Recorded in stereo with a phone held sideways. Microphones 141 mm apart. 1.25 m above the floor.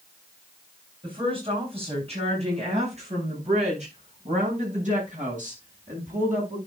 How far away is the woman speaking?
About 8 m.